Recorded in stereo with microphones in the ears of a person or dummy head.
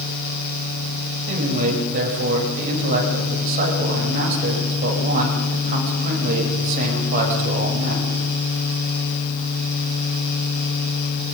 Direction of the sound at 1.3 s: 50° right (ahead or behind).